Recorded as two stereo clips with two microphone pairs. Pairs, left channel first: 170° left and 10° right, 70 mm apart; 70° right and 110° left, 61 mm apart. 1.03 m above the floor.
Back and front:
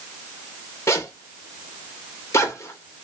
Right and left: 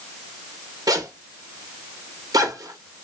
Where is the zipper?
120° left, 0.8 m.